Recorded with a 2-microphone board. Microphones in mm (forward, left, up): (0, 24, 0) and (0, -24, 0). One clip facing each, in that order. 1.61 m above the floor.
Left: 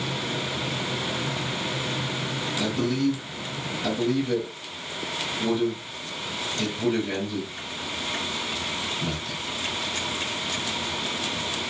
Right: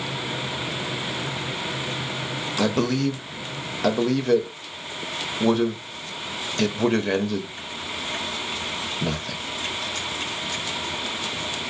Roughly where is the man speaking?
Right.